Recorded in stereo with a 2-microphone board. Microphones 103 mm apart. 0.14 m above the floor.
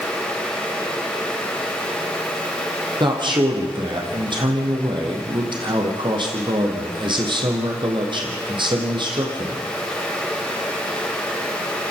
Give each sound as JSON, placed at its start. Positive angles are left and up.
{"t": 3.0, "sound": "a man speaking", "side_deg": -50, "distance_m": 4.0}